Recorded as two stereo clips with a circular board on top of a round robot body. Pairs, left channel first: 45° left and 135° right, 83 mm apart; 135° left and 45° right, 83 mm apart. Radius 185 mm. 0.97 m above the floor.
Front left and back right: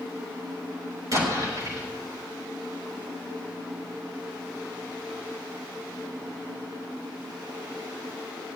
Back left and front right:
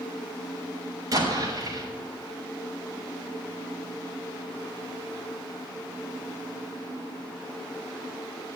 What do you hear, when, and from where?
1.1 s an explosion: 90° right, 7 m